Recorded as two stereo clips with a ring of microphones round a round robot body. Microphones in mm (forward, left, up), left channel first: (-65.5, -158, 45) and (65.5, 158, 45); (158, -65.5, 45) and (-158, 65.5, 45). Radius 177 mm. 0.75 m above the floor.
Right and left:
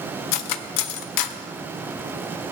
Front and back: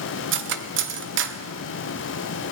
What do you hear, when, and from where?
0.3 s cutlery clinking: 145° right, 0.5 m